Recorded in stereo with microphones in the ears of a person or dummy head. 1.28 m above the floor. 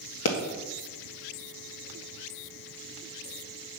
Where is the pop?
70° left (ahead or behind), 1.7 m.